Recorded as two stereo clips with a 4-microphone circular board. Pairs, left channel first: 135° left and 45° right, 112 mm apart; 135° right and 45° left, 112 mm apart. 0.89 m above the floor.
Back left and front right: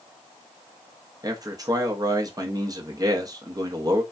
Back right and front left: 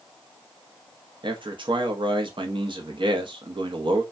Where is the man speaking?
5° left, 0.7 m.